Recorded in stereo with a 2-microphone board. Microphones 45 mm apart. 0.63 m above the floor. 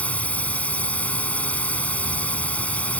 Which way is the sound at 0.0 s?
30° left (ahead or behind).